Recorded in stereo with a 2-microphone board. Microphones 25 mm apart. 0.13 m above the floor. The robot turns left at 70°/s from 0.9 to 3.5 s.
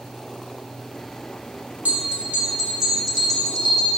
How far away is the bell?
About 7 m.